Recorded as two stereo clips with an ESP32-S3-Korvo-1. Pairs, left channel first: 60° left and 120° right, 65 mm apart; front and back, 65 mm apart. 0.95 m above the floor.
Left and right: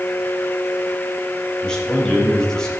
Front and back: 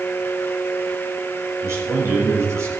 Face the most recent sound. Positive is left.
turn(degrees=135)